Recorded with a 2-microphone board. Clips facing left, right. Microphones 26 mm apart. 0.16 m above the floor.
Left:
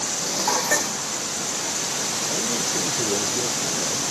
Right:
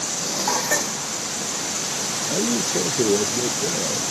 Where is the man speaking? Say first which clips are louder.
Right 5 dB; 50° right (ahead or behind).